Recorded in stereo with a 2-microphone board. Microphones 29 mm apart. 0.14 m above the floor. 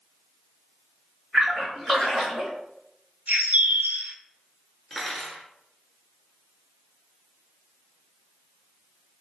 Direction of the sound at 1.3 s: 15° left (ahead or behind).